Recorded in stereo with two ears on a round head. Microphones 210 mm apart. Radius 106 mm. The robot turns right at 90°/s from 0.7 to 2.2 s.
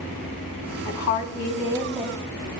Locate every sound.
0.8 s a woman speaking: 80° left, 3 m; by 2.2 s 160° right, 3 m